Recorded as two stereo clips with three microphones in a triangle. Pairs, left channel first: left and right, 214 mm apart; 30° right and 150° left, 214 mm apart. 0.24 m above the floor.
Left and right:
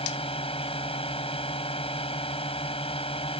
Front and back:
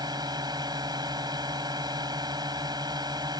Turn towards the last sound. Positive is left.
turn(degrees=105)